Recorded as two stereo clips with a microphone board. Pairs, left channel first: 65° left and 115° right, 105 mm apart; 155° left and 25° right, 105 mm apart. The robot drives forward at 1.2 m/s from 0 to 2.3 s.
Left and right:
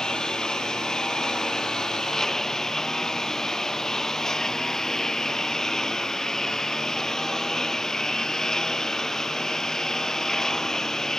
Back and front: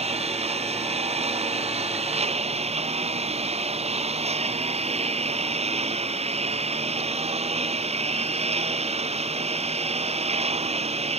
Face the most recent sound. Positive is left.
turn(degrees=-20)